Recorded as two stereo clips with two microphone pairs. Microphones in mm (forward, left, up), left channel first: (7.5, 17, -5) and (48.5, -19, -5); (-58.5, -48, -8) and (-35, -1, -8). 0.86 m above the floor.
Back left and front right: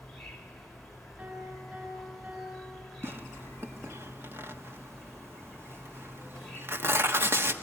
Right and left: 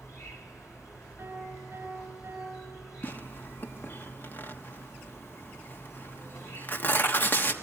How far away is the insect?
About 4 m.